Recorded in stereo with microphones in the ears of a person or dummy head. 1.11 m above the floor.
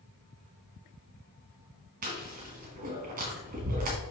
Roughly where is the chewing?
Right.